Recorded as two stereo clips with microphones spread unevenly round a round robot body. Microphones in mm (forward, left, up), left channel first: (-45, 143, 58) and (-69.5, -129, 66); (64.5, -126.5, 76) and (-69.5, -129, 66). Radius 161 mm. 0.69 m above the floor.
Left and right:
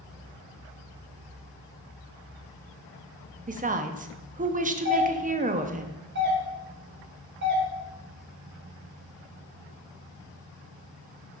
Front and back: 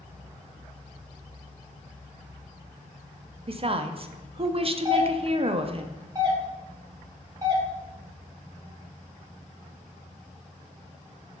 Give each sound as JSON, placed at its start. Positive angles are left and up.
{"t": 3.5, "sound": "a woman speaking", "azimuth_deg": -150, "distance_m": 0.8}
{"t": 4.8, "sound": "a doorbell", "azimuth_deg": -130, "distance_m": 2.0}